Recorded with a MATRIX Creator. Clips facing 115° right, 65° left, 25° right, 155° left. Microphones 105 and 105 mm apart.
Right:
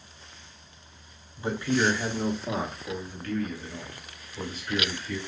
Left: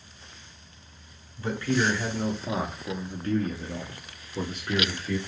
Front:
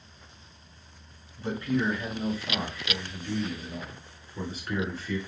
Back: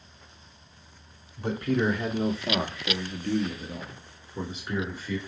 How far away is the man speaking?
About 1.3 m.